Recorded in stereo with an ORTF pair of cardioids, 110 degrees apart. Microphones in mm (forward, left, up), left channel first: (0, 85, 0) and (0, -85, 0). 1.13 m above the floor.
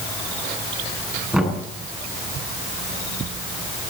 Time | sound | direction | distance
1.3 | knocking | 5° right | 9.5 m